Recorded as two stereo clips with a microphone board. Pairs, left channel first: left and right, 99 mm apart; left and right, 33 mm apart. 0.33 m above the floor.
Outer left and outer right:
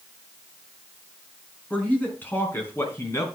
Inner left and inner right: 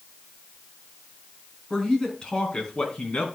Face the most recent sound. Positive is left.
turn(degrees=30)  # may be behind; listen again after turning